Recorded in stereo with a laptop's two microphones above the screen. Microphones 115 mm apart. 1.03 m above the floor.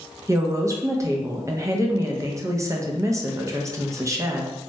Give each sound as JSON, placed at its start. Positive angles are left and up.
{"t": 0.3, "sound": "a woman speaking", "side_deg": -25, "distance_m": 0.5}